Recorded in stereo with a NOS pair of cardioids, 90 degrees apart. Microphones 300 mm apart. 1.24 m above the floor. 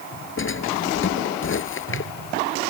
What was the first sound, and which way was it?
A drawer, 40° left.